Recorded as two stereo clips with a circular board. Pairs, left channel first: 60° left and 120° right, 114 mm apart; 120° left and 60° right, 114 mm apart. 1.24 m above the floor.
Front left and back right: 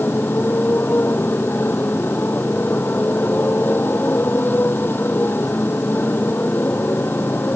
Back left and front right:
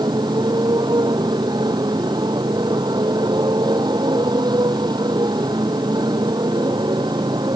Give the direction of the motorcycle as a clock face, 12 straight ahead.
12 o'clock.